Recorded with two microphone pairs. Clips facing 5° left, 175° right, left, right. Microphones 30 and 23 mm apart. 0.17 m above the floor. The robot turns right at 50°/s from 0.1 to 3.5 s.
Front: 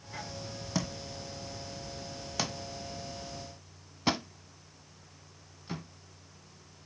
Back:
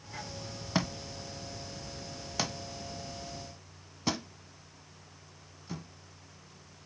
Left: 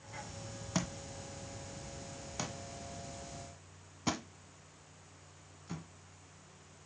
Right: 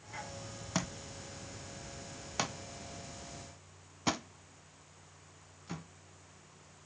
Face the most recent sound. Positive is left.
turn(degrees=-30)